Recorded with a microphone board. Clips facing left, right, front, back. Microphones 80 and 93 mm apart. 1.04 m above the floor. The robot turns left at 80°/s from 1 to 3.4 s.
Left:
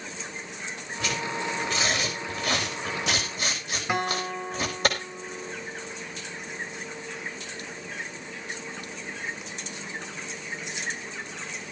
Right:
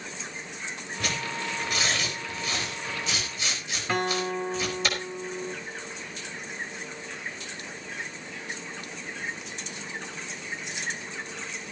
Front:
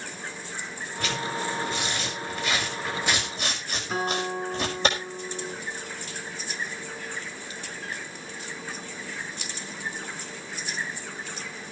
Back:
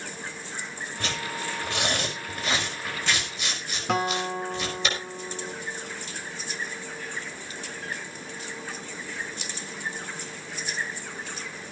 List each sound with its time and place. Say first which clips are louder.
1.0 s tearing paper: left 2 dB, front 3 dB; 115° right, 5 m; by 4.9 s 50° left, 5 m
3.9 s a guitar: right 1 dB, back 2 dB; 165° left, 3 m